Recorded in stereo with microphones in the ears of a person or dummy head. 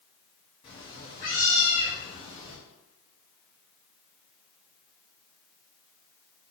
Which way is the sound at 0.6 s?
25° left (ahead or behind).